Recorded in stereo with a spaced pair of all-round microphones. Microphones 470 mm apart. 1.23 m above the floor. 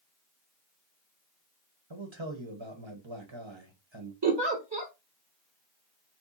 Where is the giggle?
60° right (ahead or behind), 1.7 m.